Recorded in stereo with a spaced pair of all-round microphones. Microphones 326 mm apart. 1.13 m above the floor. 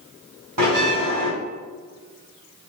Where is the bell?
75° right (ahead or behind), 3 m.